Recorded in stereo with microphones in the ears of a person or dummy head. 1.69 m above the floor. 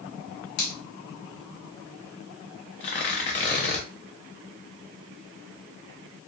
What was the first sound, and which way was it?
A finger snap, 60° left (ahead or behind).